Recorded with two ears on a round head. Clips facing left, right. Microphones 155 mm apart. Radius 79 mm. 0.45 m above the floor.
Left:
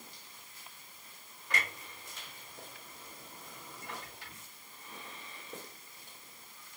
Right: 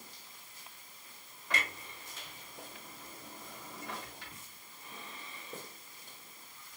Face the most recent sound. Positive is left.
turn(degrees=-70)  # may be behind; listen again after turning